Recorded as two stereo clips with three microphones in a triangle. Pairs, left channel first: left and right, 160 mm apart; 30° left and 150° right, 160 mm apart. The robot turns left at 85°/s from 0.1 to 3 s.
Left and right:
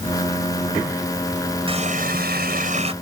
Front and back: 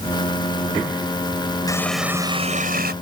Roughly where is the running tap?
Ahead right.